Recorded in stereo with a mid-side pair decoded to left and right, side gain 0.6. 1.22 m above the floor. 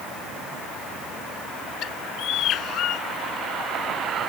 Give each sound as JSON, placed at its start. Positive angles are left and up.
{"t": 1.8, "sound": "a bird", "azimuth_deg": 55}